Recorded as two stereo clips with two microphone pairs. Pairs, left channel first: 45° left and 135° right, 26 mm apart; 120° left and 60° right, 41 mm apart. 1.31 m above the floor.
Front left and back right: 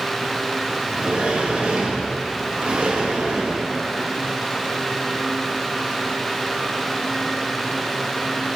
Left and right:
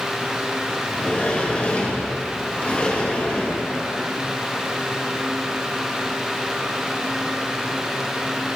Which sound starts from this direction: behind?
A sliding door, at 0.9 s.